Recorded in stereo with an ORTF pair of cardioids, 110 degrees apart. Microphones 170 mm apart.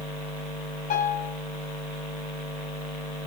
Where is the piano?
55° left, 7 m.